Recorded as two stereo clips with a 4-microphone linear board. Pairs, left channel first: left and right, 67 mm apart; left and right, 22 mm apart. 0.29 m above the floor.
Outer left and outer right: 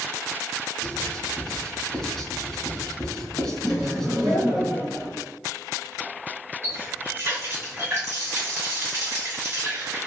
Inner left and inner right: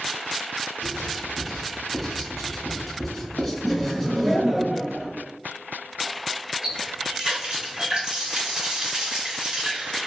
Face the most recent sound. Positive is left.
turn(degrees=-45)  # may be behind; listen again after turning